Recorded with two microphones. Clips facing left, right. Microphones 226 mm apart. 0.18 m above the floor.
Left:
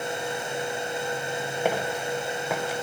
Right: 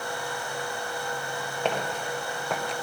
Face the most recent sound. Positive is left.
turn(degrees=5)  # may be behind; listen again after turning